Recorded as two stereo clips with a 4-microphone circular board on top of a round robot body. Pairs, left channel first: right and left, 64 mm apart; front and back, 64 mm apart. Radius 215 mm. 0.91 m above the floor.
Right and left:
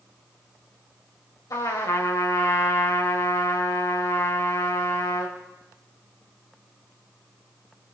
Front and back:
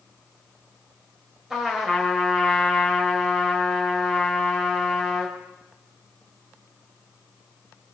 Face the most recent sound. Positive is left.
turn(degrees=-100)